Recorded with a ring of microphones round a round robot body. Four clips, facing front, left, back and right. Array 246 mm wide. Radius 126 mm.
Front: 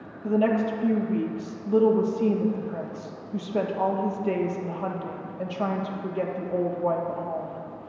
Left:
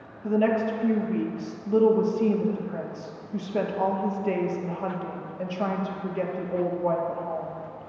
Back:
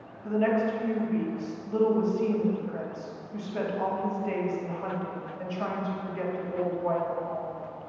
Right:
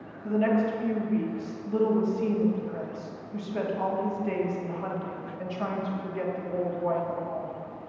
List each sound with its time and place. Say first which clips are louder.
0.2 s a woman speaking: left 2 dB, front 2 dB; 40° left, 1.3 m